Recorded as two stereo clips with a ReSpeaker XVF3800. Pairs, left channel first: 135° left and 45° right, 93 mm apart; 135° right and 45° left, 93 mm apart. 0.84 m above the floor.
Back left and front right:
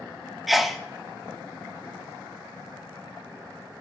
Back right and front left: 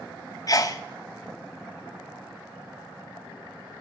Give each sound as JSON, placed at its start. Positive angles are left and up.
{"t": 0.5, "sound": "a sneeze", "azimuth_deg": -135, "distance_m": 0.8}